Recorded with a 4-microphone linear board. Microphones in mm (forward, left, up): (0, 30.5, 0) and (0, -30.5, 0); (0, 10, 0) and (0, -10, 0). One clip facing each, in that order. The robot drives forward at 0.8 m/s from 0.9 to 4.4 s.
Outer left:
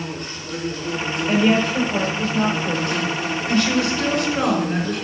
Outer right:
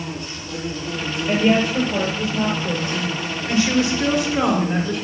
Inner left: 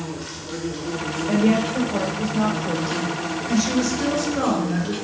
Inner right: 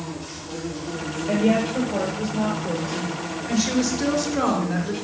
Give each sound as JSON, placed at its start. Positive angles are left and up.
{"t": 0.0, "sound": "an insect", "side_deg": 50, "distance_m": 5.5}
{"t": 1.3, "sound": "a woman speaking", "side_deg": -5, "distance_m": 6.0}